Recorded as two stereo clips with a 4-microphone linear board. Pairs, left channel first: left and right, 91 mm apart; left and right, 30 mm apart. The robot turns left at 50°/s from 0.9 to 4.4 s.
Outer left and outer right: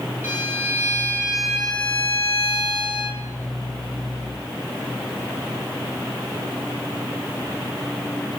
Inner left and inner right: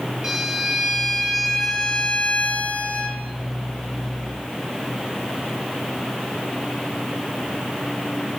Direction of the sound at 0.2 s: 155° right.